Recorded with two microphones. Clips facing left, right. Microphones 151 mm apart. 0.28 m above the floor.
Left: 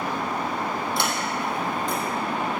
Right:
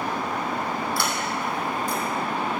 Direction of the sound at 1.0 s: 20° left (ahead or behind).